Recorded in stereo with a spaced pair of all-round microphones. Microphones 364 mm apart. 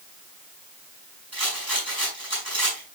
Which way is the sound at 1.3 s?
80° right.